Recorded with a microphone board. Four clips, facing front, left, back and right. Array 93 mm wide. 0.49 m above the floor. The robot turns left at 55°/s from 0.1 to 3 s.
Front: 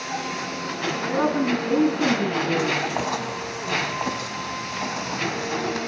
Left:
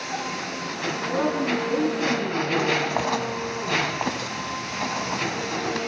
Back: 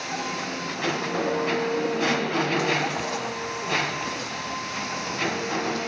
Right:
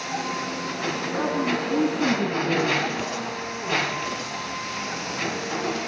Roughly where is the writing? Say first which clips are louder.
Left 4 dB, front 3 dB; ahead left.